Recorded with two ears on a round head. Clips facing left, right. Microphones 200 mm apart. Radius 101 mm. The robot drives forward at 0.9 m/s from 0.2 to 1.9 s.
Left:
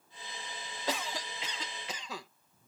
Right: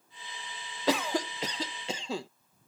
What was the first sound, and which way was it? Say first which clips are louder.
A cough: right 9 dB; 60° right (ahead or behind).